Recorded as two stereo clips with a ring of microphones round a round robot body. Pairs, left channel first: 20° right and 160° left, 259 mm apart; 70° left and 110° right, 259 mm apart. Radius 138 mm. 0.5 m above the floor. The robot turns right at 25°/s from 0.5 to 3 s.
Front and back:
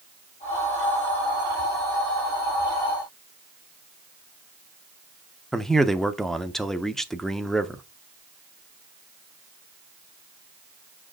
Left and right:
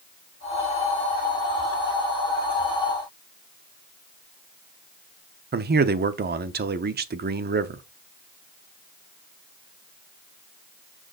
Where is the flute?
I don't hear a flute.